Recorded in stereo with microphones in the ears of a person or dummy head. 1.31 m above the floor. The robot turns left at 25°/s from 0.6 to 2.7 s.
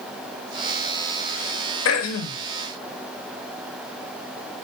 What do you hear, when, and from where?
1.9 s throat clearing: 75° left (ahead or behind), 0.6 m; by 2.4 s 65° left (ahead or behind), 0.6 m